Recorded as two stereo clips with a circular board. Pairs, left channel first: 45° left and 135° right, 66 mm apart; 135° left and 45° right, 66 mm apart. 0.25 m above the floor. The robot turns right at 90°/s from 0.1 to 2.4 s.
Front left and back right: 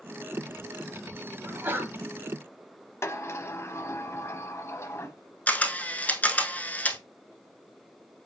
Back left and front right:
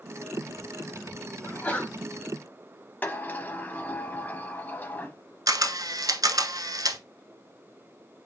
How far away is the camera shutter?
About 0.7 m.